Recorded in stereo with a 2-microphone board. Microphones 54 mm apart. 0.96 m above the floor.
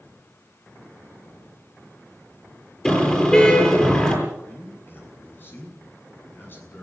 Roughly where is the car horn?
Centre.